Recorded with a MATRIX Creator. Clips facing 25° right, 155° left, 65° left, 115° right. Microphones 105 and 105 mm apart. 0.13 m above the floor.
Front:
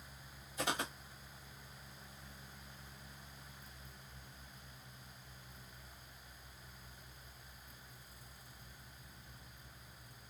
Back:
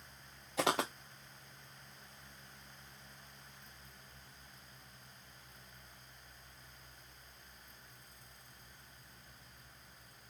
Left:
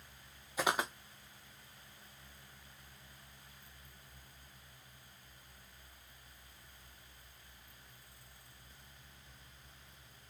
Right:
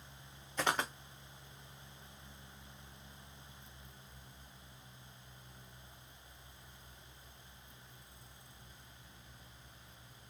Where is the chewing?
No chewing in this recording.